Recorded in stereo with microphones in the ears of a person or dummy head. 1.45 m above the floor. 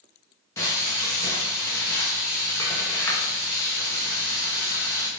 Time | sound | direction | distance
0.6 | frying | 15° left (ahead or behind) | 0.8 m